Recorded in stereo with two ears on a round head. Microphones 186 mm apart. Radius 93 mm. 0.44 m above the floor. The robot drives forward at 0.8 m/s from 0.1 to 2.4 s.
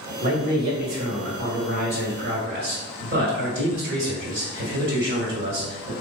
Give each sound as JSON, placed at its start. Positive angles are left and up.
{"t": 0.2, "sound": "a man speaking", "side_deg": -45, "distance_m": 2.0}